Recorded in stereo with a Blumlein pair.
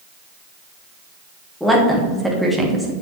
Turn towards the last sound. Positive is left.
turn(degrees=-5)